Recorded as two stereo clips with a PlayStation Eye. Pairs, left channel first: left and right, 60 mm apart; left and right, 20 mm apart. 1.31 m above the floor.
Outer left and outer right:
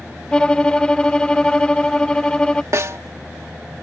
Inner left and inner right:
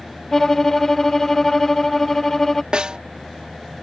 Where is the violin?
15° left (ahead or behind).